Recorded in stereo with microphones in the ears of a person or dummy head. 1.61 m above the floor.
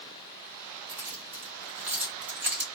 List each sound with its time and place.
0.9 s keys jangling: 10° right (ahead or behind), 1.2 m